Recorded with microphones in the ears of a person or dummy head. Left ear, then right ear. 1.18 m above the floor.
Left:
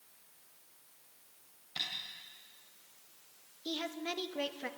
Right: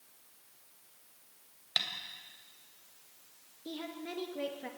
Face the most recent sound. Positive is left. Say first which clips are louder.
# left 4 dB
turn(degrees=30)  # may be behind; listen again after turning